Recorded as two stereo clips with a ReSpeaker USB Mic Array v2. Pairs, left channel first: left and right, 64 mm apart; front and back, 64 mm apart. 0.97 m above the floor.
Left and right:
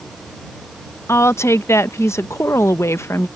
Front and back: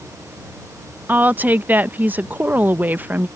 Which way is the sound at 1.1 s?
125° left.